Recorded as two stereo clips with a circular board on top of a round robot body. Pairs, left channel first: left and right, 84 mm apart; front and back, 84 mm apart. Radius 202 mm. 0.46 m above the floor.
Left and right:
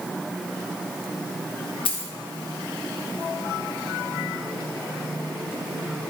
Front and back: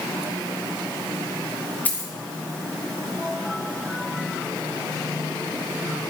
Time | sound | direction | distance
1.9 | a dropped coin | 70° left | 0.6 m